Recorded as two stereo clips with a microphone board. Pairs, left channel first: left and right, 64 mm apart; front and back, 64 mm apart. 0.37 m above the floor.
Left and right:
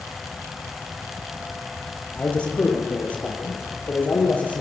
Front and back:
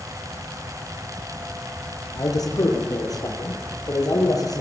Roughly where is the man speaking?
Ahead.